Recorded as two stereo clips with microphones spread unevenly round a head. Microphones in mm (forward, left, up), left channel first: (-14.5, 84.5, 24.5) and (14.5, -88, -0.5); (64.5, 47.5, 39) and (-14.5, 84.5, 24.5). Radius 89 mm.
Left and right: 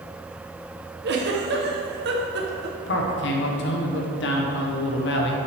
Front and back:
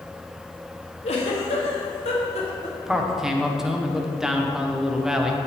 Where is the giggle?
45° right, 1.0 m.